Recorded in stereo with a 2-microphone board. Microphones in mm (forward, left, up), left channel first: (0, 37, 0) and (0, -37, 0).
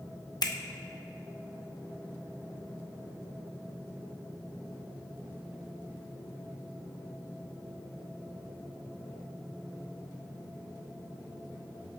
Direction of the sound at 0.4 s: 60° left (ahead or behind).